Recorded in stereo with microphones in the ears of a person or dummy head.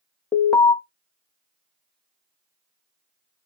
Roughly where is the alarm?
Centre.